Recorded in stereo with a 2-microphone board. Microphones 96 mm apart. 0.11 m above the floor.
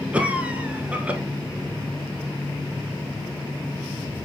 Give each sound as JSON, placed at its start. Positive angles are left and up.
{"t": 0.1, "sound": "a cough", "side_deg": -15, "distance_m": 1.2}